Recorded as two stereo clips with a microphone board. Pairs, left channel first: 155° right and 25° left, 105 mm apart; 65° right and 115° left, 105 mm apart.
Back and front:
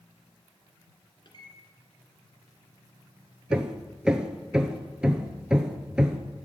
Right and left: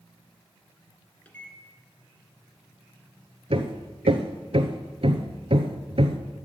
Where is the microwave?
140° right, 1.9 m.